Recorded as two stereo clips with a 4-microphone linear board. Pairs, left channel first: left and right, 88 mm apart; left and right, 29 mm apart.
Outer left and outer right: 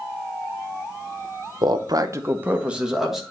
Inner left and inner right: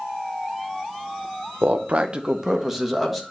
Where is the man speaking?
65° right (ahead or behind), 0.7 m; by 3.2 s centre (ahead or behind), 1.6 m.